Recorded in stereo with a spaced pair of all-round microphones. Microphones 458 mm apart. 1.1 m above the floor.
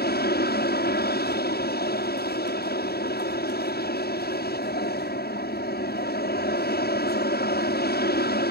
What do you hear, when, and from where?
0.0 s an aircraft: 20° left (ahead or behind)